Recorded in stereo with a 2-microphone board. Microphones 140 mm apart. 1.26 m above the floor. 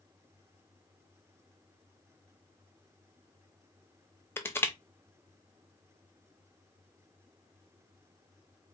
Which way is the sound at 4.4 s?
15° left (ahead or behind).